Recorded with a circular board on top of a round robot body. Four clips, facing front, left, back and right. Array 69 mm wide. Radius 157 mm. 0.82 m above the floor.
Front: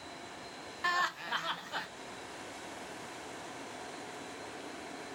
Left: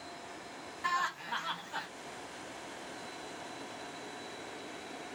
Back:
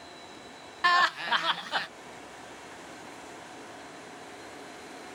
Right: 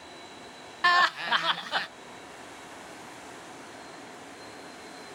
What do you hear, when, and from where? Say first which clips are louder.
0.8 s laughter: right 11 dB, back 9 dB; 125° right, 0.7 m